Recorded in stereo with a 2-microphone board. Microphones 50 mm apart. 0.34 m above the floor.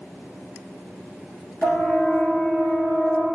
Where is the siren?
55° left (ahead or behind), 6 m; by 3.3 s 40° left (ahead or behind), 6.5 m.